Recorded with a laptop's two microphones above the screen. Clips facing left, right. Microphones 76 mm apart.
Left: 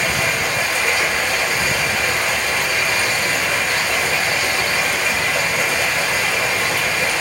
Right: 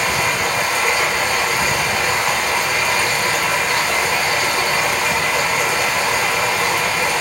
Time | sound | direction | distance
0.0 | running water | 70° right (ahead or behind) | 1.6 m